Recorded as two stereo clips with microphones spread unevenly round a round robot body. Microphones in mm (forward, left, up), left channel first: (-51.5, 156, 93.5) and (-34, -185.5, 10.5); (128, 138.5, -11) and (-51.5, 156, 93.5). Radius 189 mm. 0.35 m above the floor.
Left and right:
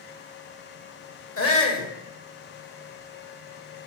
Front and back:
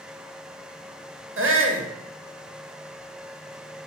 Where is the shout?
145° left, 2.5 m.